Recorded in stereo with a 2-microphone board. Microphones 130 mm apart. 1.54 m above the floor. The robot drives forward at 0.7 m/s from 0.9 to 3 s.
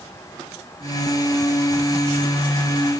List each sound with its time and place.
Only background noise.